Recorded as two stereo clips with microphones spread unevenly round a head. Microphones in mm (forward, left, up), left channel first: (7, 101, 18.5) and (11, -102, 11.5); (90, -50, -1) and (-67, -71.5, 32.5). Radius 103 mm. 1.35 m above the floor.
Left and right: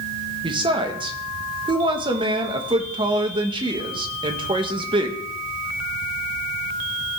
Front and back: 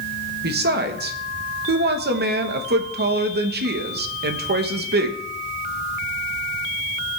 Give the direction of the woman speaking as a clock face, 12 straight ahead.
5 o'clock.